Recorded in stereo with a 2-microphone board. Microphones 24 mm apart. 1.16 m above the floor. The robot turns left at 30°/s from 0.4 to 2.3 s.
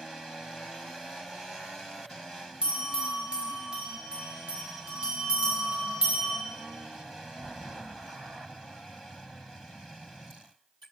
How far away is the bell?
About 1.8 m.